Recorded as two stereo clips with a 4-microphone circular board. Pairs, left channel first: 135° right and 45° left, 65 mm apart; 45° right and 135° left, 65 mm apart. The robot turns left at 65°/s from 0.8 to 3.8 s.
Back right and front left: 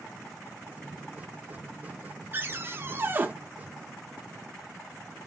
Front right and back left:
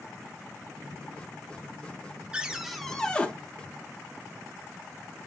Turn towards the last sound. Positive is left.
turn(degrees=-25)